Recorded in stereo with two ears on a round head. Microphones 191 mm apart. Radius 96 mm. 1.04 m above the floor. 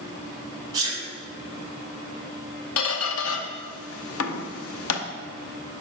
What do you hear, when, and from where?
0.7 s a sneeze: 20° right (ahead or behind), 2.5 m
2.8 s a squeak: 75° left (ahead or behind), 0.8 m